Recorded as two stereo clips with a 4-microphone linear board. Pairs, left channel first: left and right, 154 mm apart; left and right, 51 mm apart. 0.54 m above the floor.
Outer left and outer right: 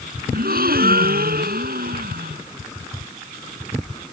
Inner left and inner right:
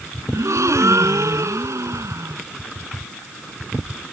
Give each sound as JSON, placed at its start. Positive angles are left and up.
{"t": 0.3, "sound": "a gasp", "side_deg": -80}